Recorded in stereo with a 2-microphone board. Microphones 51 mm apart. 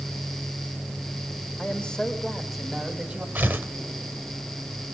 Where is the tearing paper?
35° right (ahead or behind), 1.5 m.